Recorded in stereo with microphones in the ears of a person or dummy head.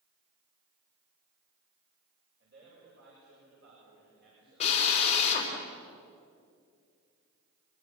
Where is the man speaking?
55° right (ahead or behind), 8 m.